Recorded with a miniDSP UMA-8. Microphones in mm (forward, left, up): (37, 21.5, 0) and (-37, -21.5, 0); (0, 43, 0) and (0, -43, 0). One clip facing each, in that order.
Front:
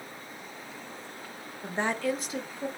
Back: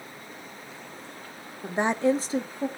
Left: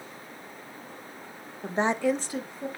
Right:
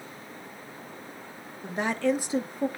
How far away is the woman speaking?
About 1.0 m.